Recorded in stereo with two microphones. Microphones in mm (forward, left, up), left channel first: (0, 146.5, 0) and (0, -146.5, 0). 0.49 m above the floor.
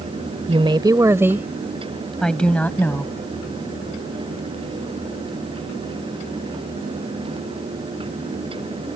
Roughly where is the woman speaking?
Right.